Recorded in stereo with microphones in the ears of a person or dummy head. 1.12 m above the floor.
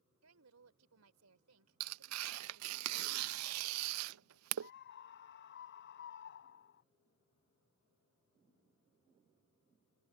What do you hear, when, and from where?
0.2 s a woman speaking: 85° right
1.8 s tearing paper: 80° right
4.6 s a scream: 60° left (ahead or behind)